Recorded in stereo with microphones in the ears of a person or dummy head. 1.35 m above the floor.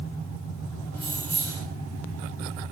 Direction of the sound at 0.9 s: 15° left (ahead or behind).